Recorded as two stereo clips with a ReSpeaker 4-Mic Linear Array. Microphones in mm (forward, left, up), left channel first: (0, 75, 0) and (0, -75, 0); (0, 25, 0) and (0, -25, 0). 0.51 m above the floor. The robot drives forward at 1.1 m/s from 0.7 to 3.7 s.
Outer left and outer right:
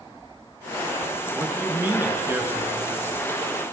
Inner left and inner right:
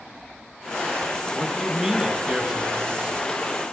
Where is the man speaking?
15° right (ahead or behind), 7.5 m; by 3.2 s 20° right (ahead or behind), 6 m.